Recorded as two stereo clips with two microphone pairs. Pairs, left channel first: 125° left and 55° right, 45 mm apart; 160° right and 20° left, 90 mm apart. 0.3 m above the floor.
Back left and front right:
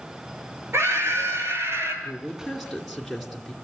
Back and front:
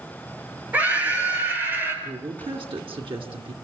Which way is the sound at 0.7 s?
50° right.